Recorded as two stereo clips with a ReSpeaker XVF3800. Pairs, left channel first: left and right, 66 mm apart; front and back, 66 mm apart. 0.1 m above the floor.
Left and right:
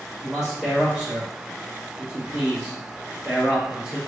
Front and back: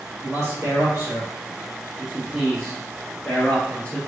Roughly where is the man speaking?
Behind.